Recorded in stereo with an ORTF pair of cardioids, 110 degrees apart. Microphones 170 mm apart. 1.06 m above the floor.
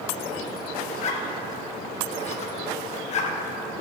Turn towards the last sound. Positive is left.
turn(degrees=40)